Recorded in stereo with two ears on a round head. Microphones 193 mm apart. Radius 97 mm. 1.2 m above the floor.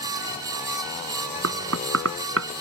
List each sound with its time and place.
1.4 s knocking: 65° right (ahead or behind)